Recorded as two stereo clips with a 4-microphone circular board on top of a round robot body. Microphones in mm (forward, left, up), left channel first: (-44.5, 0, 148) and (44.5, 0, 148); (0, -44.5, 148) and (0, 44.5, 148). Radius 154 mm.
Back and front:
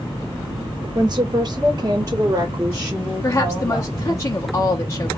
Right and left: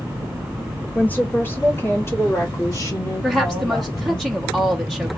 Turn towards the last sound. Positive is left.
turn(degrees=-170)